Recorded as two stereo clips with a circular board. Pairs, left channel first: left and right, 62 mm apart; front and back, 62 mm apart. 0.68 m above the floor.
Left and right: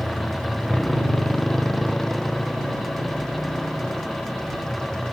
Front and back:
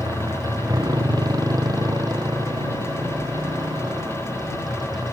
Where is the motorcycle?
Straight behind; by 5.1 s 170° left.